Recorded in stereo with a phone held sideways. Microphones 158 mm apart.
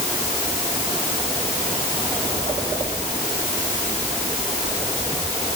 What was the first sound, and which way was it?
Only background noise.